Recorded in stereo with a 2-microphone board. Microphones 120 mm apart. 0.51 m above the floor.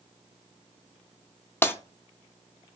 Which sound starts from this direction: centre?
Breaking glass, at 1.6 s.